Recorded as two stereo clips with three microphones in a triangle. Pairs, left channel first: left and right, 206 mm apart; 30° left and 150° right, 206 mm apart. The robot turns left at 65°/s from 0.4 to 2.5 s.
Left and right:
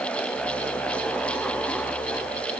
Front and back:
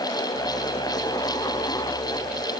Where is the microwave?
I don't hear a microwave.